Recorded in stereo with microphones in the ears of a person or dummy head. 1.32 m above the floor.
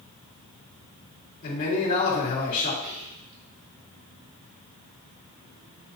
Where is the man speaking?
50° left (ahead or behind), 3 m.